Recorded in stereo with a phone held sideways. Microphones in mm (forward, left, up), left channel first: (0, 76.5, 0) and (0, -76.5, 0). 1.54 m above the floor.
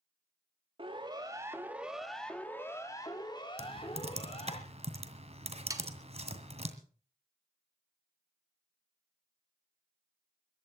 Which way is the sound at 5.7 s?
20° right (ahead or behind).